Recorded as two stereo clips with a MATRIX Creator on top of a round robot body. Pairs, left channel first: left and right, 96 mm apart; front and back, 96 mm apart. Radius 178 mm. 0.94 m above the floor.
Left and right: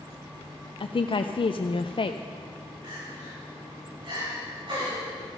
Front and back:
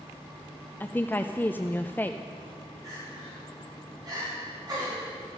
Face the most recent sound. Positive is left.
turn(degrees=-130)